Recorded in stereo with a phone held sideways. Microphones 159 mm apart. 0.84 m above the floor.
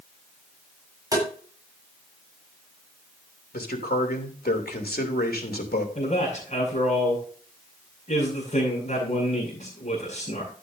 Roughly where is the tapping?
Right.